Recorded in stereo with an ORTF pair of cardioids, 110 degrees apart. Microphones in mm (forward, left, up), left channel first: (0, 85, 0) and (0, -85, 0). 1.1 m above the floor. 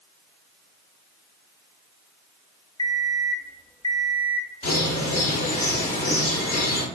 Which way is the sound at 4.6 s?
45° left.